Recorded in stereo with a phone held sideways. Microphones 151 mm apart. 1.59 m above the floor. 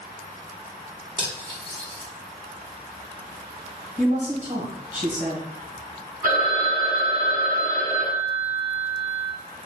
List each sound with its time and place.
1.2 s cutlery clinking: 30° right (ahead or behind), 1.2 m
4.0 s a woman speaking: 55° right (ahead or behind), 1.6 m
6.2 s a phone ringing: 60° right (ahead or behind), 1.2 m